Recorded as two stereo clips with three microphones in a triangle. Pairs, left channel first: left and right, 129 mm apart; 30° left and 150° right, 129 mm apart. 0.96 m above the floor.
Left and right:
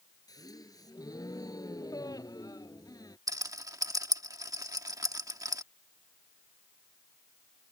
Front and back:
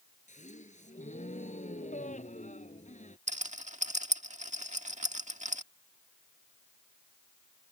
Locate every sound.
0.3 s a gasp: 30° left
3.3 s a rattle: 150° right